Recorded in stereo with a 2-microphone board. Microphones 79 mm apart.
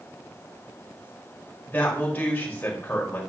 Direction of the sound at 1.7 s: 20° left (ahead or behind).